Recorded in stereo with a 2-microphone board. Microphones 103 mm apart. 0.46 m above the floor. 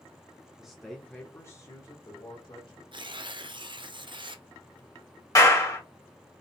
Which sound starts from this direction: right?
Tearing paper, at 2.9 s.